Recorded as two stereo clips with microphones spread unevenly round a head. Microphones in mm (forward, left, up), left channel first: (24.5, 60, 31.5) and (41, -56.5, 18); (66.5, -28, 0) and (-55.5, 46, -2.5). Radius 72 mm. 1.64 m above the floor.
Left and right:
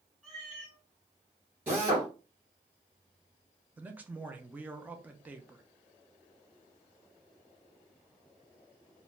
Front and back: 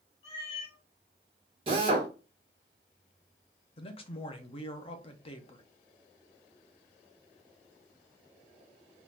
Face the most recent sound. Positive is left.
turn(degrees=0)